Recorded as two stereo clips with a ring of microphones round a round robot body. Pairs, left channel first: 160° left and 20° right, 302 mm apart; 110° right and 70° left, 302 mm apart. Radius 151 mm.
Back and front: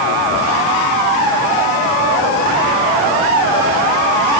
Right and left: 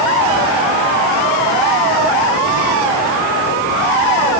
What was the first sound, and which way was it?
Only background noise.